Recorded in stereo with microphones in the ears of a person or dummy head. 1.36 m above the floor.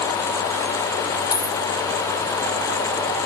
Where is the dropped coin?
30° left (ahead or behind), 2.5 m.